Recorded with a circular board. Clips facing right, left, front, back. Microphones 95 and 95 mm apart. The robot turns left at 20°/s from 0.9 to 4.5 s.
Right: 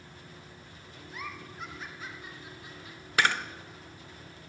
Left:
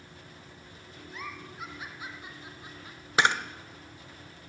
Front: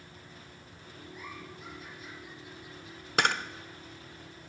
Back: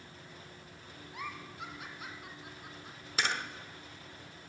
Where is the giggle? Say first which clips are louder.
Even, back 3 dB; 175° right, 2.5 m; by 3.0 s 145° left, 2.5 m.